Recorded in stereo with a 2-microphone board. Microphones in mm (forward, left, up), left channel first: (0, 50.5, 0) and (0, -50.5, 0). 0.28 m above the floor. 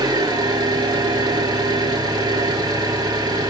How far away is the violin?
I don't hear a violin.